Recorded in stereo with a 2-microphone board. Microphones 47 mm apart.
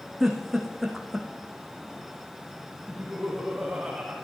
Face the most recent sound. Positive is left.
turn(degrees=-5)  # may be behind; listen again after turning